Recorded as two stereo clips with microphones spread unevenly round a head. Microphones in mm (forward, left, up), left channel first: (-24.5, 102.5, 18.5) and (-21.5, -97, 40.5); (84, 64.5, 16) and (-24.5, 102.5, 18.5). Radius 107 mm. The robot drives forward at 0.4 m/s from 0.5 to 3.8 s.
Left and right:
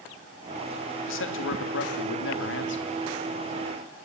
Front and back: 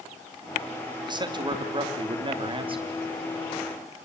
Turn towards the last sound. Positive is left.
turn(degrees=125)